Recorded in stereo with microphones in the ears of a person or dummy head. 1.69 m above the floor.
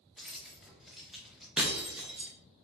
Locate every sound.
0.2 s keys jangling: centre (ahead or behind), 0.7 m
1.6 s breaking glass: 5° right (ahead or behind), 0.8 m